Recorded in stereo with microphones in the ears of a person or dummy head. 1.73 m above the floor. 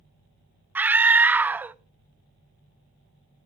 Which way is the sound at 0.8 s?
10° right (ahead or behind).